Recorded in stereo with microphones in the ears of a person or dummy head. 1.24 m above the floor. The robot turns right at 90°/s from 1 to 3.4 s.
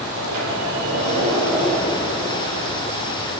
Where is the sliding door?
50° right, 9 m; by 3.1 s 135° left, 9 m.